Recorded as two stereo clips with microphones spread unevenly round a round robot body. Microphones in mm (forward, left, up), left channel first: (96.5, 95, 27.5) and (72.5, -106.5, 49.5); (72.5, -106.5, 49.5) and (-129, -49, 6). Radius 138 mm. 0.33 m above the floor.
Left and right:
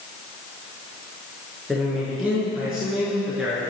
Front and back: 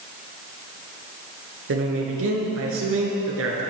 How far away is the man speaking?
About 5.5 m.